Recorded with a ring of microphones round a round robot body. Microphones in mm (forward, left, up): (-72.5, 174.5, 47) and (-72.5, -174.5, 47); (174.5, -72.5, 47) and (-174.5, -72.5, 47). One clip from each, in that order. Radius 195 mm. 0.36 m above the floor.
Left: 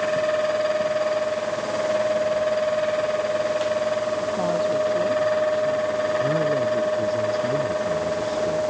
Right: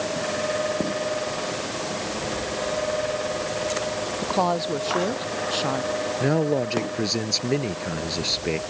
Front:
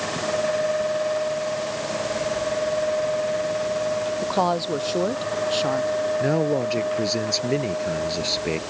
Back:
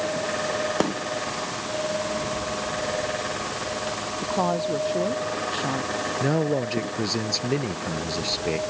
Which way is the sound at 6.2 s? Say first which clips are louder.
Left 2 dB, front 2 dB; 65° right.